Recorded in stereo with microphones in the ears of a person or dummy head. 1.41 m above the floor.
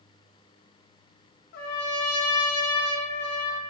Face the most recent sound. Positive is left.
turn(degrees=60)  # may be behind; listen again after turning